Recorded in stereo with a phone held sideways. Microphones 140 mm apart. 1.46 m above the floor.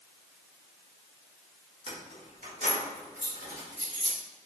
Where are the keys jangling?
45° right (ahead or behind), 1.2 m; by 4.2 s 65° right (ahead or behind), 2.5 m.